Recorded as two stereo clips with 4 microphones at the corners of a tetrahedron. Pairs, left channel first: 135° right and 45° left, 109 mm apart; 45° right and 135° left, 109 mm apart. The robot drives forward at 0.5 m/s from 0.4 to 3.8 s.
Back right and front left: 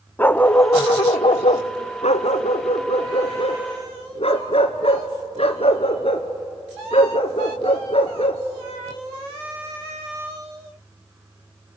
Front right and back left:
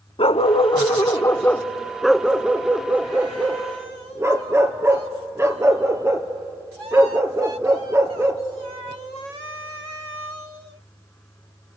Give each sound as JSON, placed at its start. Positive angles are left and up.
{"t": 0.2, "sound": "a dog barking", "azimuth_deg": -65, "distance_m": 0.6}